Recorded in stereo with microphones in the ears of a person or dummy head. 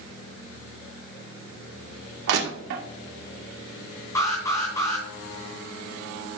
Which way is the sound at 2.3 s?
65° right (ahead or behind).